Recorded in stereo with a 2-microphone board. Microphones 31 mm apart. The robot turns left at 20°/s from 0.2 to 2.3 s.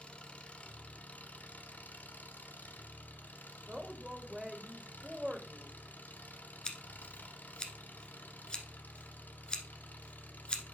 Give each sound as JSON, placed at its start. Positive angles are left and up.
{"t": 0.0, "sound": "an engine running", "azimuth_deg": 140, "distance_m": 1.1}
{"t": 3.7, "sound": "a woman speaking", "side_deg": -10, "distance_m": 1.6}
{"t": 6.7, "sound": "scissors", "side_deg": 30, "distance_m": 1.3}